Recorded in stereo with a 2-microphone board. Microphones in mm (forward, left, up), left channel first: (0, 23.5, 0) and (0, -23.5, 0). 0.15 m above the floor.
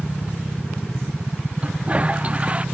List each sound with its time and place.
1.6 s a toilet flushing: 25° right (ahead or behind)